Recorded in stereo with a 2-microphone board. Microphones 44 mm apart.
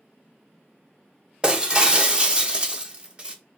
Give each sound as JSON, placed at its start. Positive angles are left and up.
{"t": 1.4, "sound": "breaking glass", "side_deg": -20, "distance_m": 0.8}